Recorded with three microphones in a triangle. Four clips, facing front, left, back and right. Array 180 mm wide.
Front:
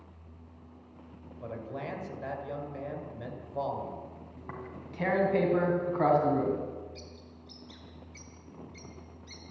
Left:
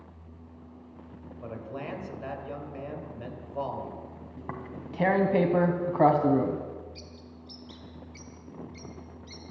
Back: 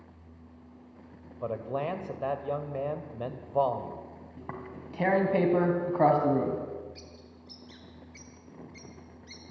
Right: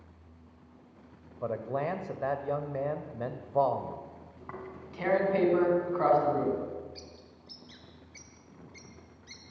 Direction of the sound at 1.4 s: 140° right.